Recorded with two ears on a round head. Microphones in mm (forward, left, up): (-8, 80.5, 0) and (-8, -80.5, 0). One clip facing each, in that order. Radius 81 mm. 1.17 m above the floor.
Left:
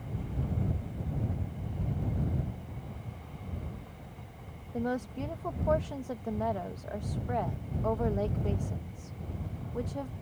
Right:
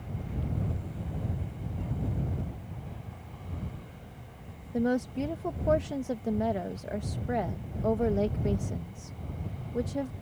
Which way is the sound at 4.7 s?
25° right (ahead or behind).